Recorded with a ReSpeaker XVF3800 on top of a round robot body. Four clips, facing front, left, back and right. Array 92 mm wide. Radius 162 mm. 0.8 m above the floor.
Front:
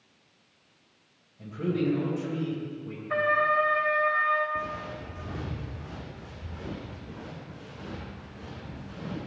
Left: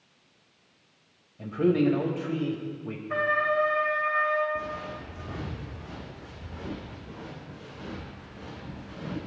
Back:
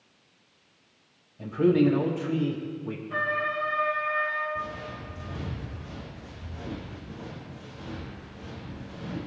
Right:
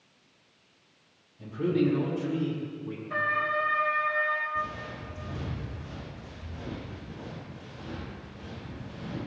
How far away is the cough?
I don't hear a cough.